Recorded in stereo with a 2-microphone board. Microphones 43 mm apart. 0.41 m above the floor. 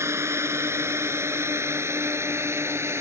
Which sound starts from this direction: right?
A drone, at 0.0 s.